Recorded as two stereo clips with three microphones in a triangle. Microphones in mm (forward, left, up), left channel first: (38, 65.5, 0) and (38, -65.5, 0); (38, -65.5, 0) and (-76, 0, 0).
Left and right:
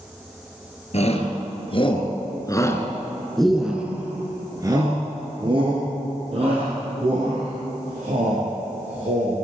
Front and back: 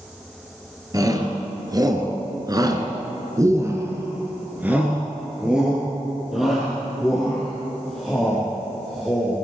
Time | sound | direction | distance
0.9 | a shout | 95° left | 2.5 m